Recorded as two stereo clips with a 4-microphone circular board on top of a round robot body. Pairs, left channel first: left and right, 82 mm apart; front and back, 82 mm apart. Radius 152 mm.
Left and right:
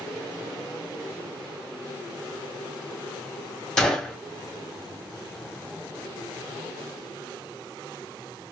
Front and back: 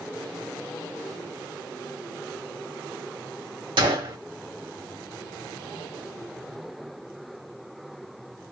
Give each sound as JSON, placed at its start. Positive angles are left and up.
{"t": 3.8, "sound": "a gunshot", "azimuth_deg": 170, "distance_m": 1.5}